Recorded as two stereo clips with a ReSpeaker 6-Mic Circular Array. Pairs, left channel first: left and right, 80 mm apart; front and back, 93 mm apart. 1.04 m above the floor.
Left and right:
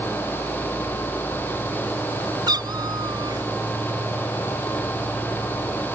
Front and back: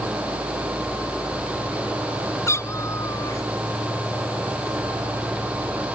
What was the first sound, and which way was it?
A cat meowing, 60° right.